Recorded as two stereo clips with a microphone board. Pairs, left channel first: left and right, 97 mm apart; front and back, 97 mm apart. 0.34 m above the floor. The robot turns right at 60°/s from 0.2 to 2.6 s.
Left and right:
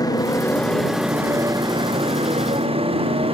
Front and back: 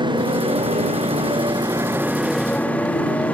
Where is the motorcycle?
140° left; by 3.3 s 75° right.